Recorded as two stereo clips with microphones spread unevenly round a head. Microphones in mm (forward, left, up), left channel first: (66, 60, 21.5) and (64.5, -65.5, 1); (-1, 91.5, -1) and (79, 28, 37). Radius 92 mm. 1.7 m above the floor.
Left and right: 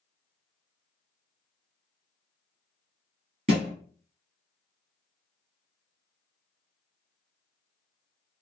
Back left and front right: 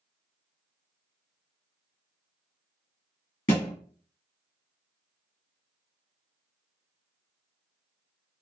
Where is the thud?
140° right, 2.5 m.